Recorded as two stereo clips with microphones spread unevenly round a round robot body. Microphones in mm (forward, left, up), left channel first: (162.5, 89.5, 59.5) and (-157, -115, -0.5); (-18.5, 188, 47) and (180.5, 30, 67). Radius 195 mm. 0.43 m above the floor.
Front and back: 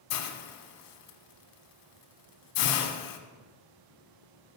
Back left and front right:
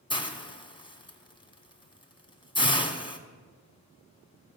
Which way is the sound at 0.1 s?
70° left.